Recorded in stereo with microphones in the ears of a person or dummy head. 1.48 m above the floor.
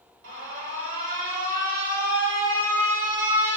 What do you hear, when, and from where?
0.2 s an alarm: 45° right (ahead or behind), 0.9 m